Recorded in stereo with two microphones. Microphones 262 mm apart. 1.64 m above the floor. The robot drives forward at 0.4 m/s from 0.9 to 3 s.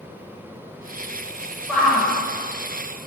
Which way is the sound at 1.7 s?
Centre (ahead or behind).